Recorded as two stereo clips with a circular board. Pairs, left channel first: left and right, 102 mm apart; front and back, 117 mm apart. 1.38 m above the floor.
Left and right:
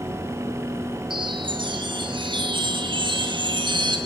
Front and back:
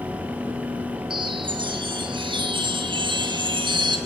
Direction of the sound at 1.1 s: 130° right.